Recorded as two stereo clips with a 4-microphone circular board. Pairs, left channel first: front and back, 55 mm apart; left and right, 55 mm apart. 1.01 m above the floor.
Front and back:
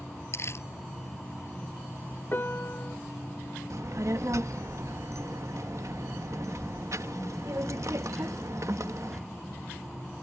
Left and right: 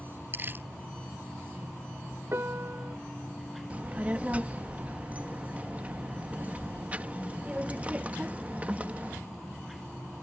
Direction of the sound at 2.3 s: 50° right.